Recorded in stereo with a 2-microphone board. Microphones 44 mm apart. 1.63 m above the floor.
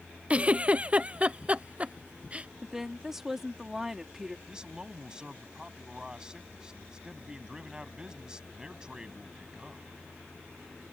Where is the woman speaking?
10° right (ahead or behind).